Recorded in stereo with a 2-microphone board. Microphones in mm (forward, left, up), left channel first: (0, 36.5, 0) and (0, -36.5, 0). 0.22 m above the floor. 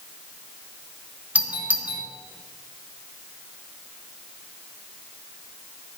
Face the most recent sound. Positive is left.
turn(degrees=-20)  # may be behind; listen again after turning